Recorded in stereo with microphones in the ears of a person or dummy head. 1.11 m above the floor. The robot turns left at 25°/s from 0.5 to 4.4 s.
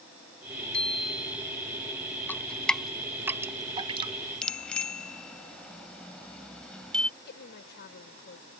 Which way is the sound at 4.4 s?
5° left (ahead or behind).